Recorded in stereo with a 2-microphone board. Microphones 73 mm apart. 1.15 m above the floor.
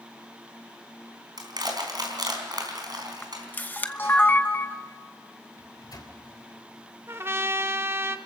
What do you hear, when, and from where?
1.4 s crushing: 65° right (ahead or behind), 4 m
3.2 s a camera shutter: 25° left (ahead or behind), 1.0 m
5.6 s a microwave: 65° left (ahead or behind), 3 m
7.1 s a trumpet: 35° right (ahead or behind), 0.9 m